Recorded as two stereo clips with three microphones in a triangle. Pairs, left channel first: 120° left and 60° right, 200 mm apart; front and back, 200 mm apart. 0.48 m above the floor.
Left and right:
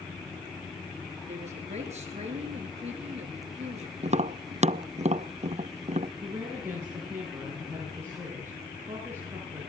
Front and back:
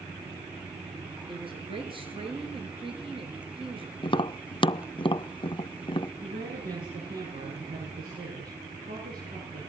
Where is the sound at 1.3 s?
115° right, 7 m.